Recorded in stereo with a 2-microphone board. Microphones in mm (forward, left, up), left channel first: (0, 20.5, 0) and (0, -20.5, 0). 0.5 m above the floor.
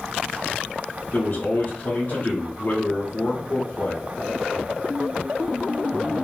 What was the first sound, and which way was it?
A man speaking, 45° left (ahead or behind).